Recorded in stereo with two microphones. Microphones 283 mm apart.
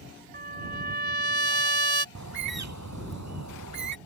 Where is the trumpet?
35° right (ahead or behind).